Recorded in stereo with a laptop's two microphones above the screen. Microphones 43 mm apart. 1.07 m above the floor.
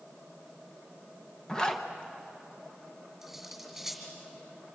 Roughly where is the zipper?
Centre.